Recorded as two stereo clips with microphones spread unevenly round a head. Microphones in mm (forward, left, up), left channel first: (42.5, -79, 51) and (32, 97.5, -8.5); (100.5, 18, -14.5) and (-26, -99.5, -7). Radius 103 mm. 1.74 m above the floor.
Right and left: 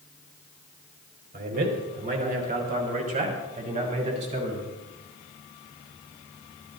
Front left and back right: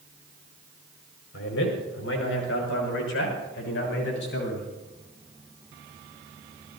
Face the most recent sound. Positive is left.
turn(degrees=40)